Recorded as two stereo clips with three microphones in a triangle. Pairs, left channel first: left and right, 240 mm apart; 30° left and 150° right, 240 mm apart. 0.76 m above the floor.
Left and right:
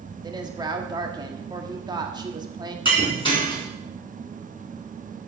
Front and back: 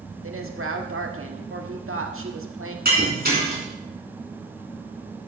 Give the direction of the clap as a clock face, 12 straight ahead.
I don't hear a clap.